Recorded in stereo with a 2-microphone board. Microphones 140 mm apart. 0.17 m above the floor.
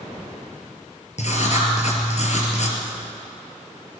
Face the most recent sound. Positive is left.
turn(degrees=60)  # may be behind; listen again after turning